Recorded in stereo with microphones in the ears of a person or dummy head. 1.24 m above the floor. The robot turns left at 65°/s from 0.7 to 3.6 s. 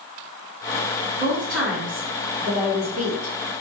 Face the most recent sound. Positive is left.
turn(degrees=75)